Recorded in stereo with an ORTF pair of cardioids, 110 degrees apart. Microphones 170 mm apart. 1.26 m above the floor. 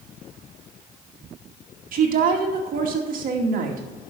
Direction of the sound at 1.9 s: 55° right.